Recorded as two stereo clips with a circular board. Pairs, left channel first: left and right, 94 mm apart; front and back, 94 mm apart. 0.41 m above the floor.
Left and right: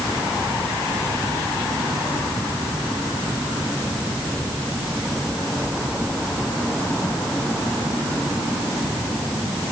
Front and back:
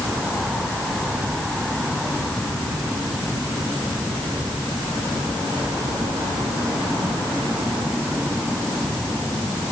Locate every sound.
Only background noise.